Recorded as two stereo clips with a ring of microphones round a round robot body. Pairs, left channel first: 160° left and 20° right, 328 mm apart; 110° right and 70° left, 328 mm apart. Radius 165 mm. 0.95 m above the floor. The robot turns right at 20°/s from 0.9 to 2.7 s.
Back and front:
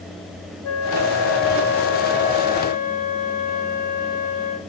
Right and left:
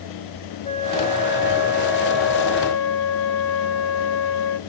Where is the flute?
Straight behind, 1.1 m; by 4.6 s 145° right, 1.1 m.